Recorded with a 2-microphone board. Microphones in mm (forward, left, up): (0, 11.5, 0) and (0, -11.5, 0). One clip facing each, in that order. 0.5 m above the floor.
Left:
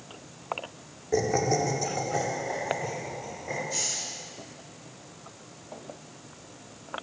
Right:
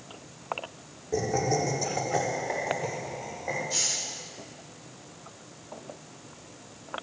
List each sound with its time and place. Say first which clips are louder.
1.1 s laughter: left 2 dB; 30° left (ahead or behind), 1.2 m; by 3.6 s 40° right (ahead or behind), 2.5 m
3.7 s a hiss: right 2 dB; 30° right (ahead or behind), 0.8 m